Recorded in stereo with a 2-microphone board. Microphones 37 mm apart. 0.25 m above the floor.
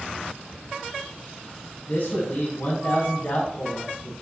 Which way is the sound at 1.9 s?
55° left (ahead or behind).